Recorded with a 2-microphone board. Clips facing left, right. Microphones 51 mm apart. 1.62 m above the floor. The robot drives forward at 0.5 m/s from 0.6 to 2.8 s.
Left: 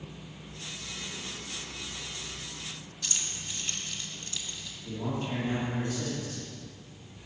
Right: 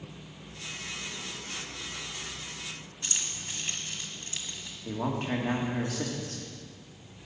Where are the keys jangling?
25° right (ahead or behind), 1.8 m.